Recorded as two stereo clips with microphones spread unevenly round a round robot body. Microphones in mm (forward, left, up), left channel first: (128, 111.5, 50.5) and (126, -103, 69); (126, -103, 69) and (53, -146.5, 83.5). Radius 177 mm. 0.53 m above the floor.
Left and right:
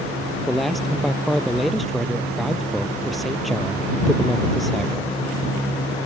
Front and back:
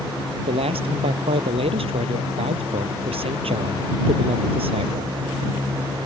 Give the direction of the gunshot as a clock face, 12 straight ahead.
I don't hear a gunshot.